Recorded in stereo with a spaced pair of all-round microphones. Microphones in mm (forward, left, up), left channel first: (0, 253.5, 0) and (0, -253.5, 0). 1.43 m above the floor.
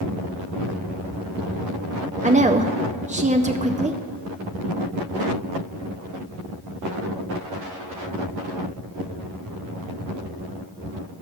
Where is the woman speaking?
15° right (ahead or behind), 0.5 m.